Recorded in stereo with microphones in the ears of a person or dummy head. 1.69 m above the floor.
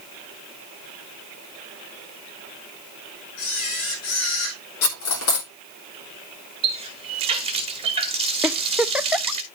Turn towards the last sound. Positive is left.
turn(degrees=-5)  # may be behind; listen again after turning